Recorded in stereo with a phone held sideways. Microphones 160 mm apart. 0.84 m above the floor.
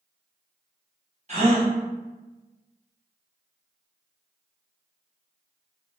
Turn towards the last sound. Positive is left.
turn(degrees=-45)  # may be behind; listen again after turning